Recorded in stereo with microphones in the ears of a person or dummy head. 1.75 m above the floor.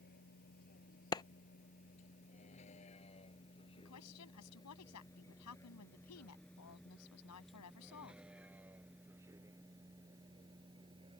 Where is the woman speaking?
80° left.